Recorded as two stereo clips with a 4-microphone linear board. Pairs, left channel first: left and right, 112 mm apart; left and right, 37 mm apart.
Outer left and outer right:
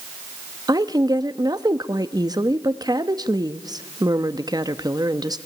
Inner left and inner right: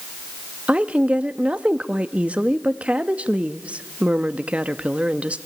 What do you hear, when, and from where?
0.7 s a woman speaking: 35° right (ahead or behind), 0.9 m